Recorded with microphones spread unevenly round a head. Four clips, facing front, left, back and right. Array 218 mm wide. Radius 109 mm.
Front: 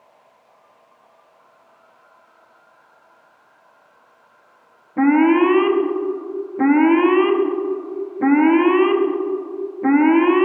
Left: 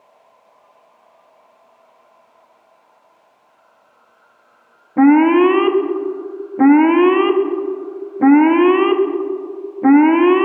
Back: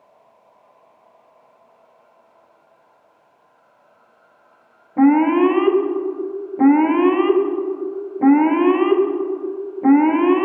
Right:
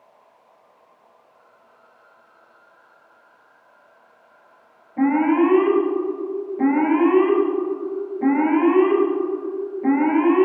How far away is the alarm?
About 1.3 m.